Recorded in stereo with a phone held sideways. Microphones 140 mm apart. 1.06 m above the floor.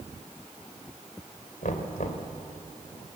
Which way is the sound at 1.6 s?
70° left (ahead or behind).